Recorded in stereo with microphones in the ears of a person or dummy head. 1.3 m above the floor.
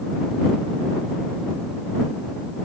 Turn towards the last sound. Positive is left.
No sound to turn to.